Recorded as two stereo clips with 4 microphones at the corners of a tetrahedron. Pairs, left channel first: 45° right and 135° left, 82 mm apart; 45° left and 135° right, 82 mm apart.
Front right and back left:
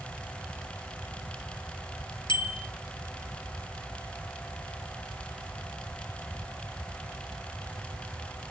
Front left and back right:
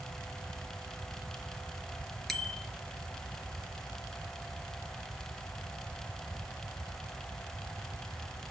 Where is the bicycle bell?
40° right, 3.5 m.